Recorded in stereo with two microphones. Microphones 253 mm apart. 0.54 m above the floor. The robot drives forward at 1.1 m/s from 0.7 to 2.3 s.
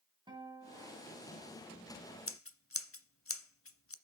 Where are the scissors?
55° left (ahead or behind), 0.7 m; by 3.9 s 60° left (ahead or behind), 0.6 m.